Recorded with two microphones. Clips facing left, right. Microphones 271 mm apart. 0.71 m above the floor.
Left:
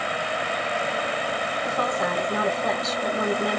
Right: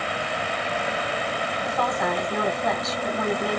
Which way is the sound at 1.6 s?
30° left (ahead or behind).